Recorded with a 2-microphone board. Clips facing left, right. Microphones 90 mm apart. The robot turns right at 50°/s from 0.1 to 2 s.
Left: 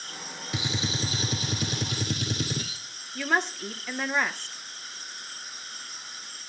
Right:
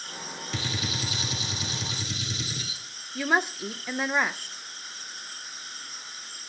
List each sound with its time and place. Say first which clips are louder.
0.5 s a gunshot: left 2 dB; 15° left, 1.0 m; by 2.8 s 90° left, 1.0 m
3.1 s a woman speaking: right 1 dB; 10° right (ahead or behind), 0.6 m